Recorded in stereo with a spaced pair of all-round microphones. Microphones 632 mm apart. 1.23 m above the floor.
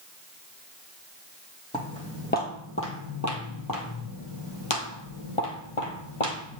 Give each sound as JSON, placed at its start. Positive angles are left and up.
{"t": 1.7, "sound": "footsteps", "side_deg": 10, "distance_m": 2.0}